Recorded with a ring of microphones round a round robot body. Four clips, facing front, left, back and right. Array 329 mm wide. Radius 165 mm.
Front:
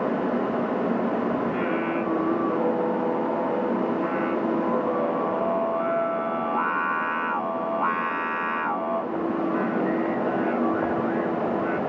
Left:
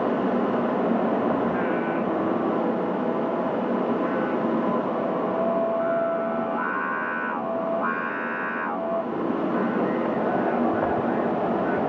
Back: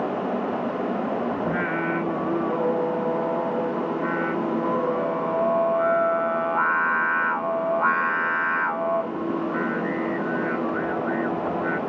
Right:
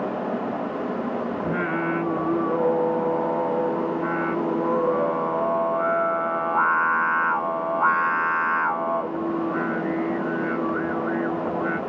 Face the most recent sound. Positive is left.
turn(degrees=-100)